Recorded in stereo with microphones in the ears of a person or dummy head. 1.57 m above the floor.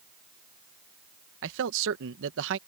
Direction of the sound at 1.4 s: 75° right (ahead or behind).